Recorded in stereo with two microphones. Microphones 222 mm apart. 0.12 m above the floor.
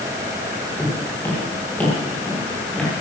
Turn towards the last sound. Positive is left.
turn(degrees=5)  # may be behind; listen again after turning